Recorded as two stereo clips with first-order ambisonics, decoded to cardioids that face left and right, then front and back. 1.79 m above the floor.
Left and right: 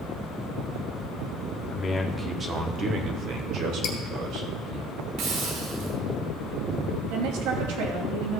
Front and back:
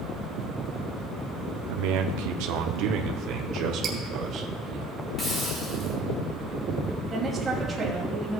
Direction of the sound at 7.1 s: 105° right.